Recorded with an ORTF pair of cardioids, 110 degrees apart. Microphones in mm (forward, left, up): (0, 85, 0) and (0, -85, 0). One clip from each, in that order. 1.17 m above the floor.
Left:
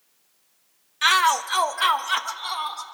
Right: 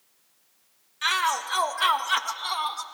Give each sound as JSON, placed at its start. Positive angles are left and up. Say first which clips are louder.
{"t": 1.0, "sound": "a shout", "louder": "left 6 dB", "azimuth_deg": 35, "distance_m": 1.1}